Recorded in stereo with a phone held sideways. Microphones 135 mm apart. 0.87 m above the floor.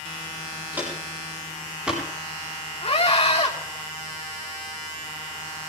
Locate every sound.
0.7 s footsteps: 10° right (ahead or behind), 9 m; by 2.0 s 5° right (ahead or behind), 10 m
2.8 s a scream: 50° left (ahead or behind), 5.5 m